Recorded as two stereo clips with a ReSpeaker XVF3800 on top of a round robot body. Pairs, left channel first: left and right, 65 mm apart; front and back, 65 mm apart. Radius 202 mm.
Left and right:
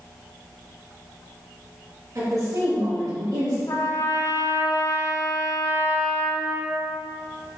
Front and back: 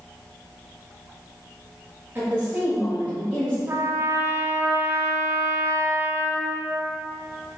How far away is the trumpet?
About 0.8 m.